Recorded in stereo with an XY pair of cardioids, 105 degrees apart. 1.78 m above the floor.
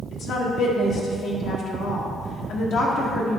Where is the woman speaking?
65° left, 1.5 m.